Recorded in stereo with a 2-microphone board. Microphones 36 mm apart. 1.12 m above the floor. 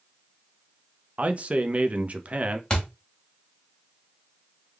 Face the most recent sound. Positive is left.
turn(degrees=20)  # may be behind; listen again after turning